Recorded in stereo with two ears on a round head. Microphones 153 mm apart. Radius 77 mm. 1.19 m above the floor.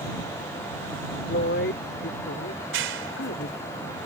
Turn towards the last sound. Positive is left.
turn(degrees=-80)